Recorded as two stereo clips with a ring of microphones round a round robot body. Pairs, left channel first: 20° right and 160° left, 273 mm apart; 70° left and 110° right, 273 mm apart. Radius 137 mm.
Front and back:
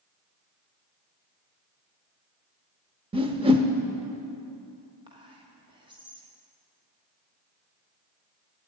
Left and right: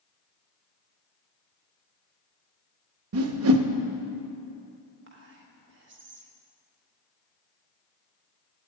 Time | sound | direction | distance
3.1 | a whoosh | 135° right | 0.6 m
5.1 | whispering | 135° right | 1.2 m